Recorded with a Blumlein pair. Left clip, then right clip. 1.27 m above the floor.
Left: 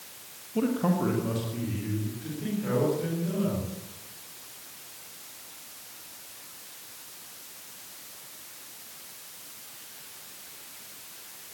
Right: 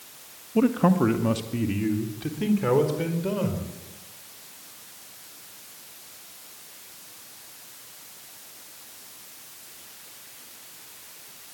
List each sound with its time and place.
0.6 s a man speaking: 20° right, 1.7 m; by 3.7 s 35° right, 5.5 m